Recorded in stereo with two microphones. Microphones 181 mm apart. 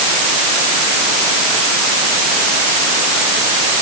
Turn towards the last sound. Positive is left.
No sound to turn to.